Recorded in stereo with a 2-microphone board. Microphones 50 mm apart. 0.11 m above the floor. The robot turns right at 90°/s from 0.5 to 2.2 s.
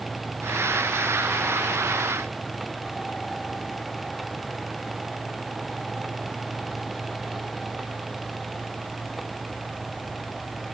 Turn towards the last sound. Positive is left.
No sound to turn to.